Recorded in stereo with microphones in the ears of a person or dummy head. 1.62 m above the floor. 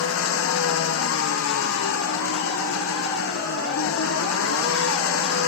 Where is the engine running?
90° left.